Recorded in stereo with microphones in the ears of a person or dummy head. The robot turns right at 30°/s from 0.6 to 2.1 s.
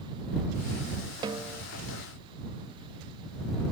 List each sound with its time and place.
1.2 s a snare drum: 25° right (ahead or behind); by 1.6 s 15° right (ahead or behind)